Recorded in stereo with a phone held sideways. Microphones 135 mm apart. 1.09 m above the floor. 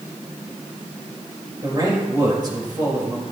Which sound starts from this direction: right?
A man speaking, at 1.6 s.